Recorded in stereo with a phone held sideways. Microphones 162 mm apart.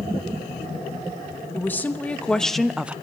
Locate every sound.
1.5 s a woman speaking: 10° left (ahead or behind), 1.4 m; by 3.0 s 10° right (ahead or behind), 0.6 m